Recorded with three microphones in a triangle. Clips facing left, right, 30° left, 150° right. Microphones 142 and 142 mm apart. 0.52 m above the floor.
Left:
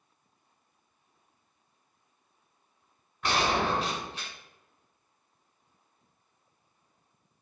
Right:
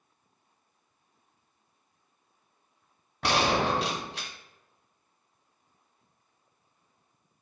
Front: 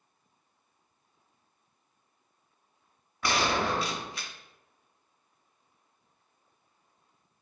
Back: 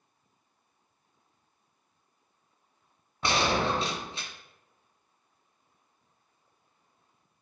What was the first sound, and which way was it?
A gunshot, 85° right.